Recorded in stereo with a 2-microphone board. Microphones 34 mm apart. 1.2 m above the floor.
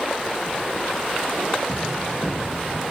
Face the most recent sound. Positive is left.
turn(degrees=40)  # may be behind; listen again after turning